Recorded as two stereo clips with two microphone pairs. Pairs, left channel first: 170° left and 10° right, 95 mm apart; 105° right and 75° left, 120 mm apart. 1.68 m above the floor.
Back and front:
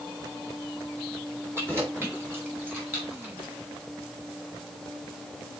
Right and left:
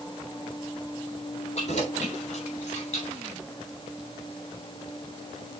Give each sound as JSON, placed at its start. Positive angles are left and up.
{"t": 1.6, "sound": "keys jangling", "azimuth_deg": -75, "distance_m": 3.0}